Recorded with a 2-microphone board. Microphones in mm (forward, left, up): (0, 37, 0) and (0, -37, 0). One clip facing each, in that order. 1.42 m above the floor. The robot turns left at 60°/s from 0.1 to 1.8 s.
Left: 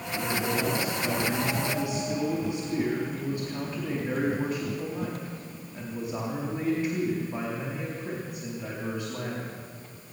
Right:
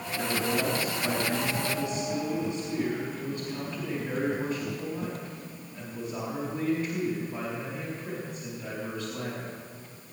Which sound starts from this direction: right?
A man speaking, at 0.1 s.